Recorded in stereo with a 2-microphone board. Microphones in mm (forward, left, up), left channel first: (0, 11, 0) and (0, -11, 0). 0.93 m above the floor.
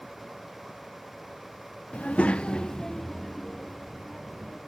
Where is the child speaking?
70° left (ahead or behind), 0.6 m; by 4.6 s 5° right (ahead or behind), 1.9 m.